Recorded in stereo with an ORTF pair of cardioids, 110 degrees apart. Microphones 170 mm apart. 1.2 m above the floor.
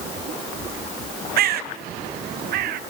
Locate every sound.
1.4 s a bird: 65° right, 0.7 m